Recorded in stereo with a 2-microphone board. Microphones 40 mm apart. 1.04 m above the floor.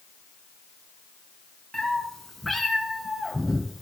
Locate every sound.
1.7 s a cat meowing: 10° left (ahead or behind), 2 m; by 3.8 s 5° right (ahead or behind), 3 m